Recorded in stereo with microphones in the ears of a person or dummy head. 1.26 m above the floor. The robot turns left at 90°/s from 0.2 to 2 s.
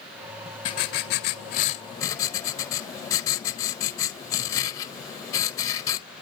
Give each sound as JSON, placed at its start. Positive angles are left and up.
{"t": 0.7, "sound": "writing", "azimuth_deg": 140, "distance_m": 0.6}